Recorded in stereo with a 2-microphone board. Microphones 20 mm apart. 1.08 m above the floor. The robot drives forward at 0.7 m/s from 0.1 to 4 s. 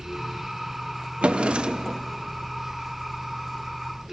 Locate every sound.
1.2 s a drawer: 80° right, 0.7 m; by 2.0 s 45° right (ahead or behind), 0.9 m